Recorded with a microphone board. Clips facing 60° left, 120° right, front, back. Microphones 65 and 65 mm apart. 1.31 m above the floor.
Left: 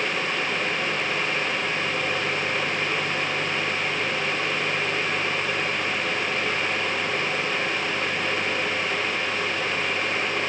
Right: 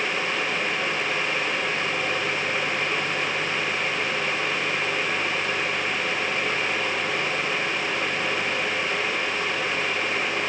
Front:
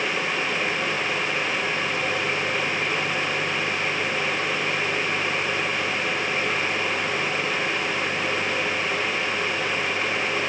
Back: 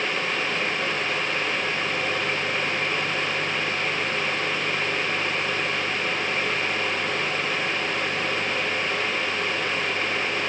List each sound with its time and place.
Only background noise.